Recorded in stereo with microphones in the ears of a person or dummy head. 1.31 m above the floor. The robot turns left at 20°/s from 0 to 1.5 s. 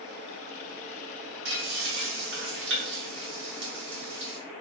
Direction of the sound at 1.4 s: 55° right (ahead or behind).